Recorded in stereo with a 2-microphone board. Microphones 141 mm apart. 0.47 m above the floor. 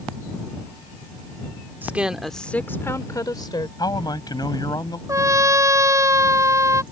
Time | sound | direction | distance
1.8 | a woman speaking | 15° right (ahead or behind) | ?
3.8 | a man speaking | 30° left (ahead or behind) | ?
5.1 | a trumpet | 20° right (ahead or behind) | ?